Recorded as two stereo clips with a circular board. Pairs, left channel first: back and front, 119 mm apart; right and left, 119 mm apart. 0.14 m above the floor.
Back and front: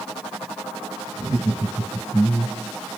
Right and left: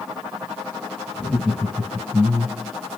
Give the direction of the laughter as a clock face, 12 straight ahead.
12 o'clock.